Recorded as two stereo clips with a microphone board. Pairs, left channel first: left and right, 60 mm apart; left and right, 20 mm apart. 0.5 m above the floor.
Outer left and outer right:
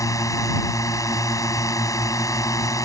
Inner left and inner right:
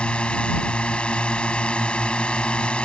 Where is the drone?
70° left (ahead or behind).